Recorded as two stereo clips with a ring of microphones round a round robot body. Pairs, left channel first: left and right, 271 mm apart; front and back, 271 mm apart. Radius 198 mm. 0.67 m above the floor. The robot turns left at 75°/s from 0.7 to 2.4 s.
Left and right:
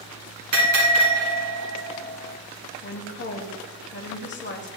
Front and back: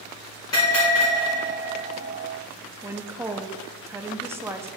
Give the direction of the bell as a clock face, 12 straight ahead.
3 o'clock.